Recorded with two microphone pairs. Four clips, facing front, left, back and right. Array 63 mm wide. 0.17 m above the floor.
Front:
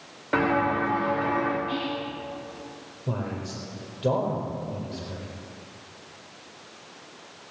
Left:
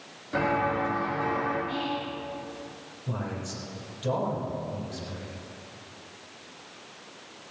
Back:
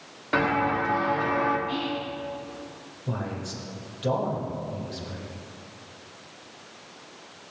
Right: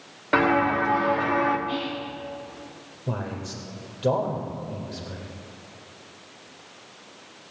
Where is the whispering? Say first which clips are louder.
Right 1 dB, even; 70° right, 1.8 m.